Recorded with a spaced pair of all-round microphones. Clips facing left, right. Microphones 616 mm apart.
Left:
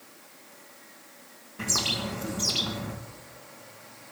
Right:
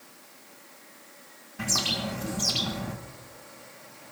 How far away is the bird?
About 1.8 m.